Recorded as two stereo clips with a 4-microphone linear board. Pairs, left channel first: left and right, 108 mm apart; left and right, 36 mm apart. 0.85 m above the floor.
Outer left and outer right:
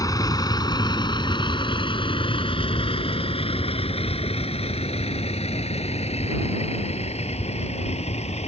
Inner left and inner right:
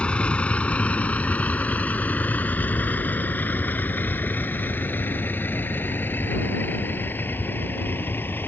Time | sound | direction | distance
0.0 | a vehicle | 35° left (ahead or behind) | ?